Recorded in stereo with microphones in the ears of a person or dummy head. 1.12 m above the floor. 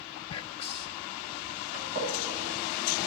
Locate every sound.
0.3 s whispering: 25° left (ahead or behind), 1.6 m
1.7 s a gunshot: 40° right (ahead or behind), 8.5 m